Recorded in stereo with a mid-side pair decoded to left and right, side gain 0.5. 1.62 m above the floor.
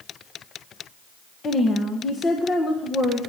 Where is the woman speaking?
40° left, 1.6 m.